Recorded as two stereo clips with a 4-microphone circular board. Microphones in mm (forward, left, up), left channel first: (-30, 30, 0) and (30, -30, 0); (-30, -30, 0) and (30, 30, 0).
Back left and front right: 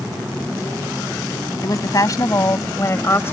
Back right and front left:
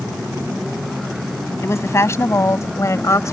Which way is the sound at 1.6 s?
175° left.